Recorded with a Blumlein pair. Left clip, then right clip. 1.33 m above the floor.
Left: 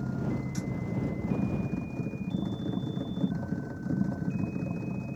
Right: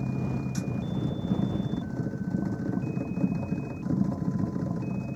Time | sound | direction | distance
0.0 | a machine running | 10° right | ?